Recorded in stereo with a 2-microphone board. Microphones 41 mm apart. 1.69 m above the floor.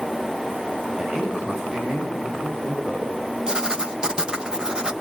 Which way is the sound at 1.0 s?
10° right (ahead or behind).